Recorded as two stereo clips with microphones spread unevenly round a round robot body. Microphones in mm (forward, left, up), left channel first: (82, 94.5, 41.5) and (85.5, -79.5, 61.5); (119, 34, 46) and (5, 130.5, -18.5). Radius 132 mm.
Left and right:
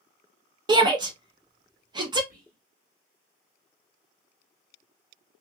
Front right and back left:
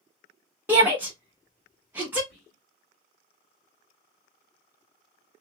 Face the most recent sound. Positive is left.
turn(degrees=-60)